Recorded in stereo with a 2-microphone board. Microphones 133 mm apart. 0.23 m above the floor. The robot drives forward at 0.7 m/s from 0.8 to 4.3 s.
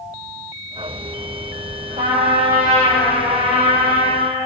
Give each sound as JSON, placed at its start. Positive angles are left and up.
{"t": 2.0, "sound": "a trumpet", "side_deg": -65, "distance_m": 7.5}